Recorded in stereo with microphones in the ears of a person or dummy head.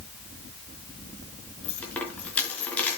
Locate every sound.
1.6 s a dropped coin: 5° left (ahead or behind), 5 m